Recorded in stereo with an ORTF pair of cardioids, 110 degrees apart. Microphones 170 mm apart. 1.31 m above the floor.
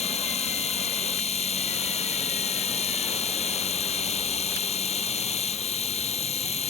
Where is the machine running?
35° left.